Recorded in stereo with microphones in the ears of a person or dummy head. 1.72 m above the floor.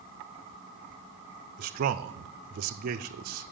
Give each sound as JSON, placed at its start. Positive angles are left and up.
{"t": 1.6, "sound": "a man speaking", "side_deg": -50, "distance_m": 0.6}